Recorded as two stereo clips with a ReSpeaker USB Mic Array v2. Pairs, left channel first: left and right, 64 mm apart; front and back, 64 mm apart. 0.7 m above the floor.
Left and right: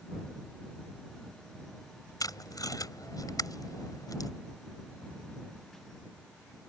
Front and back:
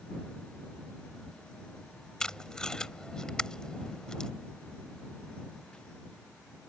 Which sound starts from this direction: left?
Tape being pulled, at 2.2 s.